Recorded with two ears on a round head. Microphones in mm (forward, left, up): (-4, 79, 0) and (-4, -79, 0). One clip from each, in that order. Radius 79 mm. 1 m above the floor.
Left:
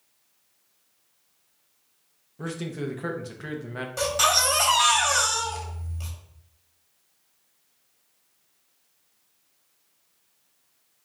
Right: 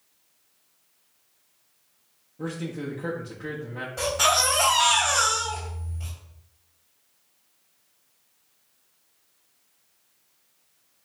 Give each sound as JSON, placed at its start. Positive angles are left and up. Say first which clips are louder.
{"t": 2.4, "sound": "a man speaking", "louder": "even", "side_deg": 45, "distance_m": 0.8}
{"t": 4.0, "sound": "a baby crying", "louder": "even", "side_deg": 75, "distance_m": 1.4}